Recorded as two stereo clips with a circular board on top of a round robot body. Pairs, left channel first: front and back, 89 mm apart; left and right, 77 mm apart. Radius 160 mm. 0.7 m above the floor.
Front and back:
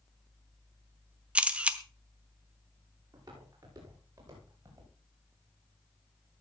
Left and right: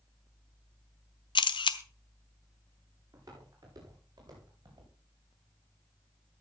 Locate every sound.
1.4 s a camera shutter: 105° left, 0.9 m
3.1 s footsteps: 135° right, 10 m; by 4.9 s 125° right, 10 m